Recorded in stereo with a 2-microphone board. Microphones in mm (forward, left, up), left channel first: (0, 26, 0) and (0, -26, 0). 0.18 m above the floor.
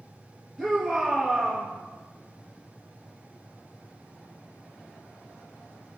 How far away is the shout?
About 3.5 m.